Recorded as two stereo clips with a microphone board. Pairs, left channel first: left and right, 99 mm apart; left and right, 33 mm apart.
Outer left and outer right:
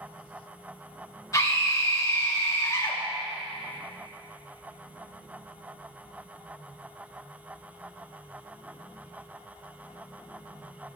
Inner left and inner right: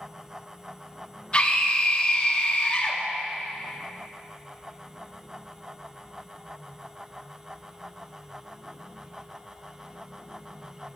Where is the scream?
35° left (ahead or behind), 3 m.